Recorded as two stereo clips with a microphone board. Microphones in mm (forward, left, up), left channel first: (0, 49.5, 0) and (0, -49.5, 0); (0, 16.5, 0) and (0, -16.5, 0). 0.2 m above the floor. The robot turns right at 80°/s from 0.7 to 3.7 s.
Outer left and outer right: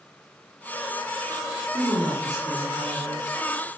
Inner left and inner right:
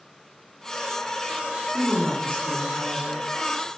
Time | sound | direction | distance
1.7 | a woman speaking | 10° right | 1.8 m